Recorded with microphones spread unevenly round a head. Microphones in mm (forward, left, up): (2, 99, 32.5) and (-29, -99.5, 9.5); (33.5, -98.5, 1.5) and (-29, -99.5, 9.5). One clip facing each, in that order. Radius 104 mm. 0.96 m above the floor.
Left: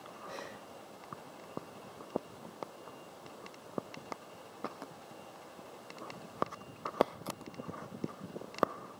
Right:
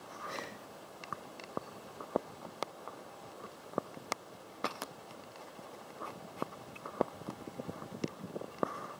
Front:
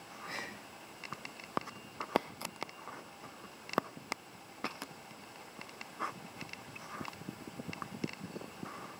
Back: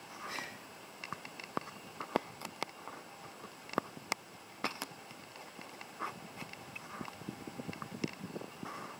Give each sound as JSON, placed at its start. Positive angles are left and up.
{"t": 0.2, "sound": "breathing", "azimuth_deg": -40, "distance_m": 3.0}